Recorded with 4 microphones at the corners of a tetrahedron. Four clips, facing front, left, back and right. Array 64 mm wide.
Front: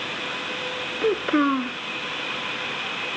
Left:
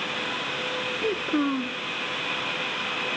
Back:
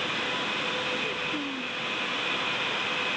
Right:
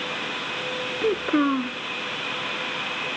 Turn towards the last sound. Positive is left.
turn(degrees=-20)